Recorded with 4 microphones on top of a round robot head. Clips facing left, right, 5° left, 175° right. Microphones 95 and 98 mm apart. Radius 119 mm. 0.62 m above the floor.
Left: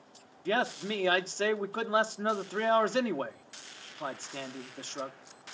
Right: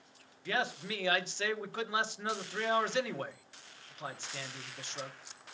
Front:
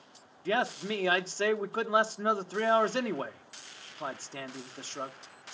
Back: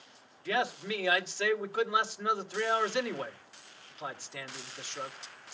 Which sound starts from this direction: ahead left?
A man speaking, at 0.5 s.